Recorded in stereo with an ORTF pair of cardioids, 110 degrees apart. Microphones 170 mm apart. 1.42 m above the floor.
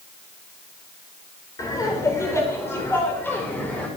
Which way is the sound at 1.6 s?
20° left.